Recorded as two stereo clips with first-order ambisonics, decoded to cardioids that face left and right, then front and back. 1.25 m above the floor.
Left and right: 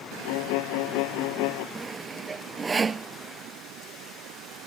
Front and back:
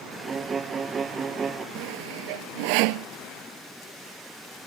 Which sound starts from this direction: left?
A violin, at 0.2 s.